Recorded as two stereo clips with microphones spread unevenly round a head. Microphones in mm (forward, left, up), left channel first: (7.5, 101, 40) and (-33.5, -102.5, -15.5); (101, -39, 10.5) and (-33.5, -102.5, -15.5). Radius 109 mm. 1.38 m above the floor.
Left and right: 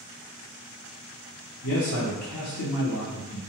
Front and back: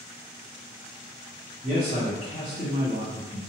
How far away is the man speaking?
About 0.7 m.